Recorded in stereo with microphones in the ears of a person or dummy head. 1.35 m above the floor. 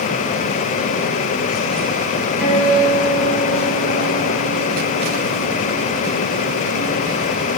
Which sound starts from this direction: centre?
A guitar, at 2.4 s.